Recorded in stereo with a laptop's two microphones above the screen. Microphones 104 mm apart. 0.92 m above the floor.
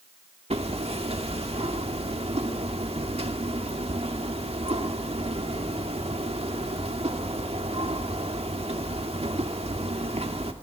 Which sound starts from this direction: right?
Hammering, at 0.5 s.